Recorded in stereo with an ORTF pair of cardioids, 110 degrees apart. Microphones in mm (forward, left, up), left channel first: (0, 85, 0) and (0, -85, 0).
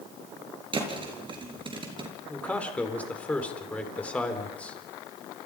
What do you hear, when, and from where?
0.7 s a thud: 30° right, 6 m
2.3 s a man speaking: 10° left, 4.5 m